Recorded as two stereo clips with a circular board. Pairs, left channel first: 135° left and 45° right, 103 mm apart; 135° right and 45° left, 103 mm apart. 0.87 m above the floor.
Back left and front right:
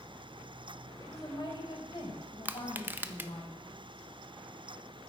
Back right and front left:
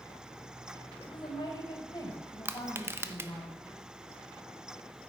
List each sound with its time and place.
1.0 s a woman speaking: 170° right, 3.5 m; by 3.5 s 165° left, 5 m
2.5 s crushing: 5° left, 0.6 m